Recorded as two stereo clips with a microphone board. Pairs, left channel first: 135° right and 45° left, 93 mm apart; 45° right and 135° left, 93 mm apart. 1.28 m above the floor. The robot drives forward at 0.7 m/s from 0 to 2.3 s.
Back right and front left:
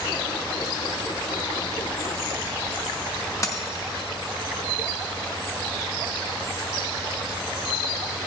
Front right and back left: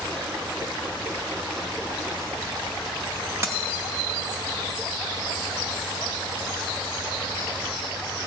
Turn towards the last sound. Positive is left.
turn(degrees=-175)